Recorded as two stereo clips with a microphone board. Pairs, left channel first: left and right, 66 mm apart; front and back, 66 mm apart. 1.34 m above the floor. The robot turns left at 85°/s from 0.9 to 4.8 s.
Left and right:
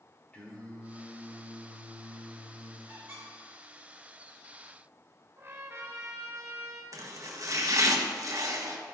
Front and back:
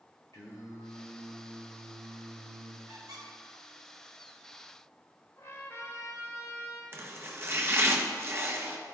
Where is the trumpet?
40° right, 1.6 m.